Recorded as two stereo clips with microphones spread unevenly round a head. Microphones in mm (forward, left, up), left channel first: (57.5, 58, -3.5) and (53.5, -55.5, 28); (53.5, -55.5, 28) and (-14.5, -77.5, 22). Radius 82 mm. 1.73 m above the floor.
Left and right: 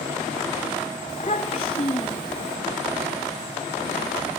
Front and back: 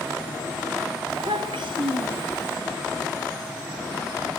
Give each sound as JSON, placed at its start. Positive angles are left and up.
{"t": 1.1, "sound": "a child speaking", "azimuth_deg": 150, "distance_m": 3.0}